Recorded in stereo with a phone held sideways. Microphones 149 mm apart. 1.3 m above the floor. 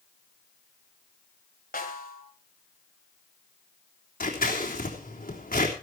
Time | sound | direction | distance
1.7 | a snare drum | 80° left | 3.5 m
4.2 | scissors | 75° left (ahead or behind) | 4 m